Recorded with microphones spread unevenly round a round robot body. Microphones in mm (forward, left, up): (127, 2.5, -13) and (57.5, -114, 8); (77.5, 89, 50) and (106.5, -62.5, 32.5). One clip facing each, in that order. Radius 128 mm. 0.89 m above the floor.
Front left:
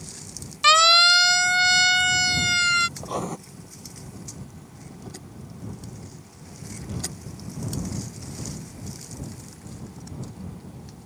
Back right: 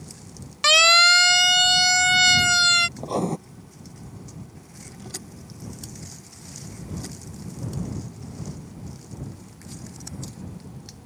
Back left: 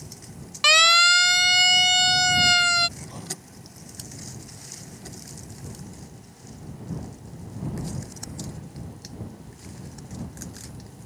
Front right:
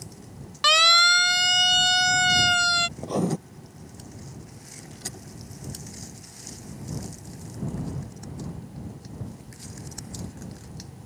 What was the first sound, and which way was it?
A siren, 175° right.